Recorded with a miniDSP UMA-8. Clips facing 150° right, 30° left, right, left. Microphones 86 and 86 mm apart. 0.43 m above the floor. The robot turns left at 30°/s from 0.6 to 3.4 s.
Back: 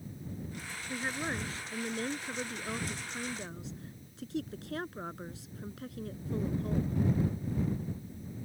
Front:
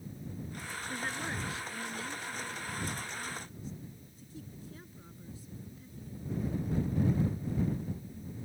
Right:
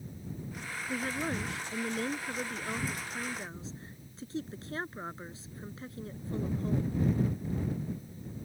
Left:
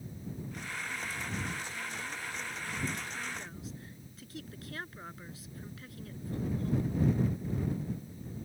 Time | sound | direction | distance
0.9 | a woman speaking | 75° right | ?